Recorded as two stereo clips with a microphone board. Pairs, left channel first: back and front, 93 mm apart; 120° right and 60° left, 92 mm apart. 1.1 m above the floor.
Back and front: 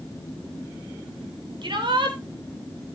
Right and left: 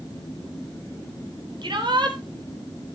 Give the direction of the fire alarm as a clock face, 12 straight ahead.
No fire alarm in this recording.